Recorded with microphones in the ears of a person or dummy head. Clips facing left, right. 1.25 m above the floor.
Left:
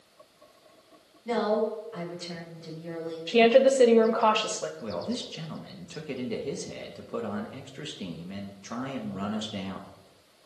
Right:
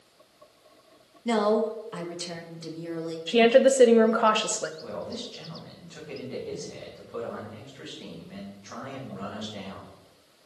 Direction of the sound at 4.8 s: 55° left (ahead or behind).